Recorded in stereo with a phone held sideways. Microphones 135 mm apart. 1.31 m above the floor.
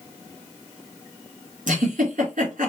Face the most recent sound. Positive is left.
turn(degrees=-75)  # may be behind; listen again after turning